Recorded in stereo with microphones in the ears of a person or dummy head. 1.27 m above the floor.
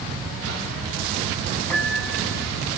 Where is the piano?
10° left (ahead or behind), 6 m.